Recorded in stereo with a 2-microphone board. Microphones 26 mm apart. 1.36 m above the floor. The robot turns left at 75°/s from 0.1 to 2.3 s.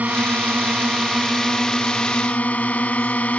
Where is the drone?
80° right; by 3.4 s 115° left.